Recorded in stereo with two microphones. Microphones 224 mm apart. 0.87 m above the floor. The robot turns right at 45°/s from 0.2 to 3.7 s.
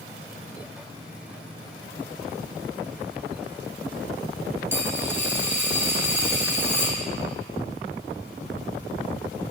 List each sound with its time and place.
4.7 s a dropped coin: 10° right (ahead or behind), 1.5 m